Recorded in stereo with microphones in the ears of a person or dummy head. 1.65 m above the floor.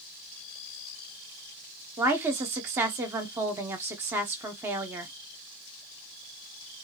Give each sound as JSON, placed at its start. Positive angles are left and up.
{"t": 2.0, "sound": "a woman speaking", "side_deg": -15, "distance_m": 0.6}